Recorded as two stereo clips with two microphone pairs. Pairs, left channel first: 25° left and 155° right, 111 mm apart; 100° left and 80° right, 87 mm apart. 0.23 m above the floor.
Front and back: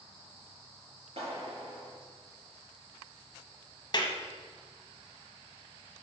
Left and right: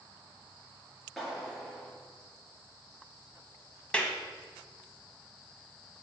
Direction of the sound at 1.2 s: 175° right.